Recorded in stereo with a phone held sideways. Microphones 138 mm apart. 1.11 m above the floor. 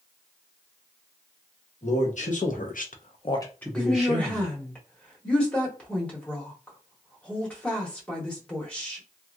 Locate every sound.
1.8 s a man speaking: 55° left (ahead or behind), 1.3 m; by 4.5 s 15° right (ahead or behind), 1.3 m
3.8 s a woman speaking: 10° left (ahead or behind), 1.3 m